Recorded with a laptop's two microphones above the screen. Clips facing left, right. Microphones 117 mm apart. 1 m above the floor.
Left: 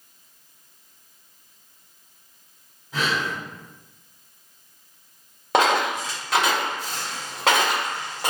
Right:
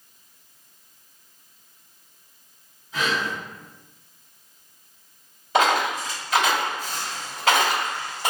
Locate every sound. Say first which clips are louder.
2.9 s breathing: even; 60° left (ahead or behind), 1.6 m
5.5 s a dropped coin: left 1 dB; 80° left, 1.3 m